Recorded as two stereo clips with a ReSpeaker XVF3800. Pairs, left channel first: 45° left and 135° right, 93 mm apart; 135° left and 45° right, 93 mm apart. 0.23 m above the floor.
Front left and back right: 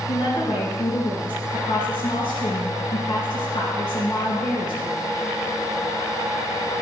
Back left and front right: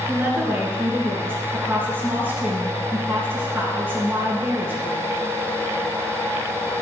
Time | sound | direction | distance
0.1 | a woman speaking | 20° left | 3 m